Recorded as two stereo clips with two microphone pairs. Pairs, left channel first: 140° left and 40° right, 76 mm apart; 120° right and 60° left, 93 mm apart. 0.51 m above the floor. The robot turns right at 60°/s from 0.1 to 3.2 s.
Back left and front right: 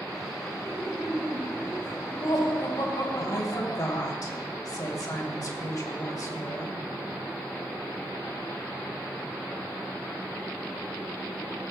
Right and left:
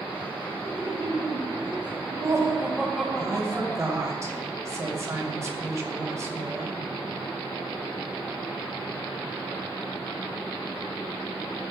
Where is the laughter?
15° left, 3.5 m; by 4.0 s 170° left, 3.5 m.